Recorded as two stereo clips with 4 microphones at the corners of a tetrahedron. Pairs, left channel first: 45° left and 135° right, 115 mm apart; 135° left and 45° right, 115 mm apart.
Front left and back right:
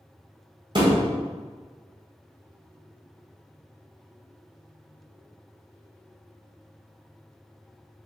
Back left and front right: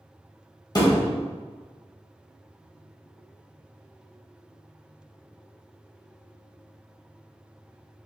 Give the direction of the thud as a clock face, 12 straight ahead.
6 o'clock.